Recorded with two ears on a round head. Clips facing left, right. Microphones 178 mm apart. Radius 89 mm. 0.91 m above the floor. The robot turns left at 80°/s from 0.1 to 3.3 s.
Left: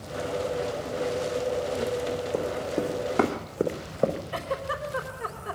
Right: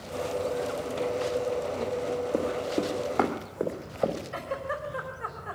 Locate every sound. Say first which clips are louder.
2.3 s running footsteps: even; 15° right (ahead or behind), 2.5 m; by 4.2 s 30° left (ahead or behind), 2.5 m
4.3 s a giggle: left 2 dB; 50° left (ahead or behind), 3.5 m